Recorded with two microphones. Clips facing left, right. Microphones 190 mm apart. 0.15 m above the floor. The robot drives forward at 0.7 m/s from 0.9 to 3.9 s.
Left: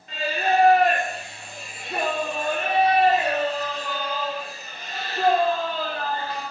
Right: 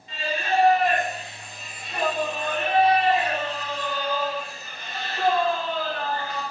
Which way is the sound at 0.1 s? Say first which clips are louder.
Left 3 dB; 65° left (ahead or behind).